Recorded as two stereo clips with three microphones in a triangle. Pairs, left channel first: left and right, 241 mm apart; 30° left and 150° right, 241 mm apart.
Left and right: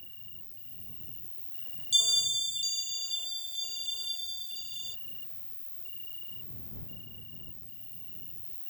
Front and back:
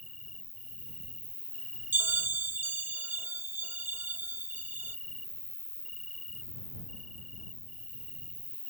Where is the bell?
135° left.